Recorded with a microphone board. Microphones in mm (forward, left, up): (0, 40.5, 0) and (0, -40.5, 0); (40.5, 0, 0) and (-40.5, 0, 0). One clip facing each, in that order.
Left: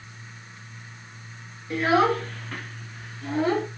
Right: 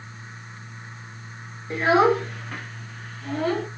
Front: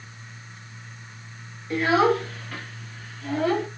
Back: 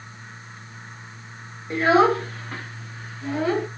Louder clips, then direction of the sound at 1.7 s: Right 2 dB, back 3 dB; 135° right.